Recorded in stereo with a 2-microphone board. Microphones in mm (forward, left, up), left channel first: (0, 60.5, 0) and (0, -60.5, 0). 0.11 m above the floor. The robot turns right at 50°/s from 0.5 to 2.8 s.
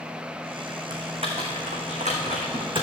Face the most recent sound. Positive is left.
turn(degrees=-45)  # may be behind; listen again after turning